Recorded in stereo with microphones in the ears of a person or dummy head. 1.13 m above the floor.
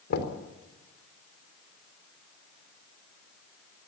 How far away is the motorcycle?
No motorcycle in this recording.